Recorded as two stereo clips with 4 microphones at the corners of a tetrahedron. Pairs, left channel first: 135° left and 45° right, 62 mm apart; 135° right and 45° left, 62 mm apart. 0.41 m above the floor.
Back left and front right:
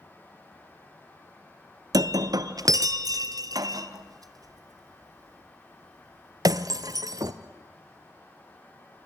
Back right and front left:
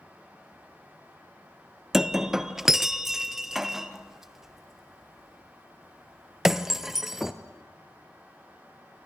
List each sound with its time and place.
1.9 s breaking glass: 40° right, 0.9 m